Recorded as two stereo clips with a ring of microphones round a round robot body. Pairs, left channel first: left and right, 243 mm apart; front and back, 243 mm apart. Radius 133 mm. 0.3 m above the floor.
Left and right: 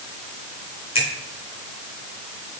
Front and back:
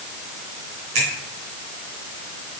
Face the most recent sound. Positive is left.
turn(degrees=155)